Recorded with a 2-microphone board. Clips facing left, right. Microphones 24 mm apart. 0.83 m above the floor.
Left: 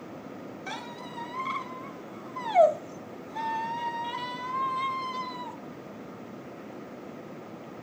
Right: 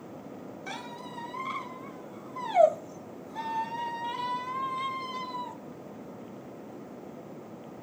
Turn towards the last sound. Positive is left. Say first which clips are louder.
# left 1 dB
turn(degrees=10)  # may be behind; listen again after turning